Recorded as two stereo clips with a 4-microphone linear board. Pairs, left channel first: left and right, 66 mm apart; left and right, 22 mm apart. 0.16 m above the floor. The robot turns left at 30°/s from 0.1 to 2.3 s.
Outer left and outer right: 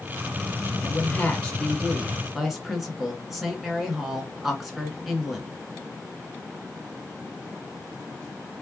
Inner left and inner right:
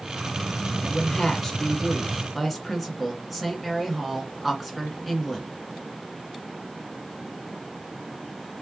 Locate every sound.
0.8 s a woman speaking: 40° left, 1.8 m; by 5.5 s straight ahead, 1.8 m